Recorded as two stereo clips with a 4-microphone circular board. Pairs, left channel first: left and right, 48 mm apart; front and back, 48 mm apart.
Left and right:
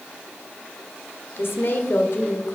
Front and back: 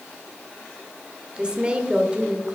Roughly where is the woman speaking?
Left.